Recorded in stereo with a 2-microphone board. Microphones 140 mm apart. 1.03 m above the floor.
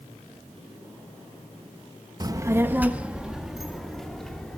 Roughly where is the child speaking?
Right.